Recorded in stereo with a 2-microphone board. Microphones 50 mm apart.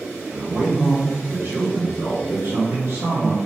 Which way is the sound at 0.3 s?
40° right (ahead or behind).